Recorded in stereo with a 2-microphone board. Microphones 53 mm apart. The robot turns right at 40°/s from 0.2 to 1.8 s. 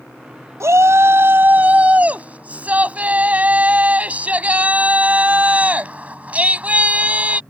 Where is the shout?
80° right; by 7.4 s 30° right.